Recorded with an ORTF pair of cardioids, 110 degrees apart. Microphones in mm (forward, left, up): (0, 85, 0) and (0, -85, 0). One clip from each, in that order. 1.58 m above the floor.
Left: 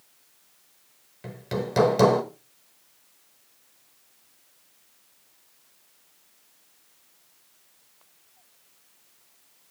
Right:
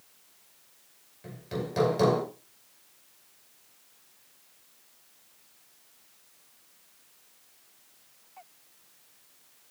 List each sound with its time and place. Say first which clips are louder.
1.2 s hammering: left 5 dB; 50° left, 2.5 m